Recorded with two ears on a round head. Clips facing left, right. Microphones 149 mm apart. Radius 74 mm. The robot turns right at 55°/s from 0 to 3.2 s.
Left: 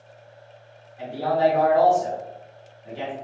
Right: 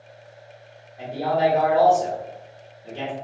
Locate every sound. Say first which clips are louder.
1.0 s a man speaking: even; 160° right, 1.8 m; by 3.1 s 40° right, 1.8 m